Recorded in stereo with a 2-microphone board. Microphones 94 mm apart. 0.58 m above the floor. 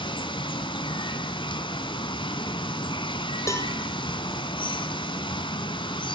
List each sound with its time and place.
0.0 s running water: 60° left (ahead or behind), 1.3 m
3.5 s a cowbell: 30° left (ahead or behind), 1.5 m